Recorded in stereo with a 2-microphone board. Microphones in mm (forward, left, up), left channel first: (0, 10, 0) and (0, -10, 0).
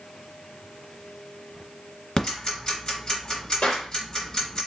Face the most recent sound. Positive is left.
turn(degrees=65)  # may be behind; listen again after turning